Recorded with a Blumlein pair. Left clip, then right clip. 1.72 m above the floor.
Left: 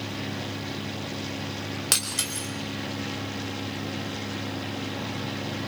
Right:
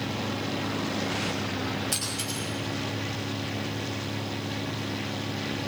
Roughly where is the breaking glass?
Ahead left.